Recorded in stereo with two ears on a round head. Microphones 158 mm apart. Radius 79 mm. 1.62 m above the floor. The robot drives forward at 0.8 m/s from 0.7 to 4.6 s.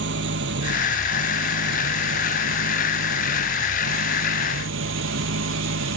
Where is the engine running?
70° right (ahead or behind); by 6.0 s 80° right.